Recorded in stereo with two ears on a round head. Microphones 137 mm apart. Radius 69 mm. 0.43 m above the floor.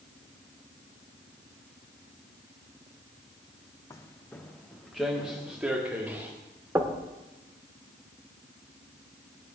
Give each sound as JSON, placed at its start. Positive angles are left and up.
{"t": 3.9, "sound": "footsteps", "side_deg": 20, "distance_m": 1.2}
{"t": 6.8, "sound": "knocking", "side_deg": -15, "distance_m": 0.9}